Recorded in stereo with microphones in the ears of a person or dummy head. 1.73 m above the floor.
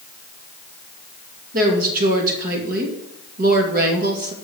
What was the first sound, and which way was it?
A woman speaking, 50° right (ahead or behind).